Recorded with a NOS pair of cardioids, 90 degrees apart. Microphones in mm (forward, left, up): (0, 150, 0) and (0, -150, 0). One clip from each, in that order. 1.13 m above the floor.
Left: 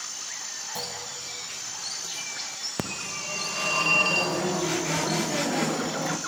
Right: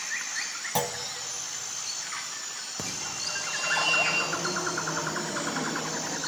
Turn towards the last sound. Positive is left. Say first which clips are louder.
# right 1 dB
turn(degrees=50)